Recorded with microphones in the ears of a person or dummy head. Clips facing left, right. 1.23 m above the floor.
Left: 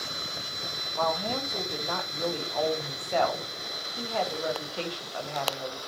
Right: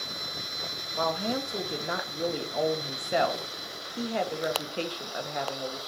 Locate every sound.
0.9 s a woman speaking: 25° right (ahead or behind), 1.6 m